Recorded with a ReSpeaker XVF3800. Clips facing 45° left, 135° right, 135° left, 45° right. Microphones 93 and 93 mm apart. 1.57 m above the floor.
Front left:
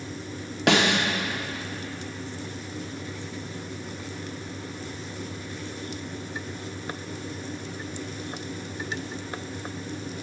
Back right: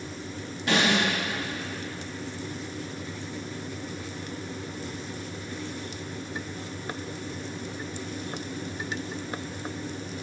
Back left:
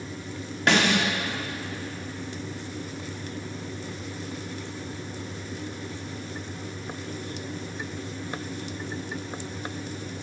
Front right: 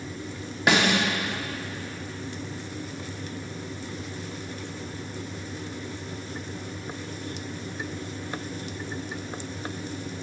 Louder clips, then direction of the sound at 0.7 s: Front left 2 dB, even; 35° left.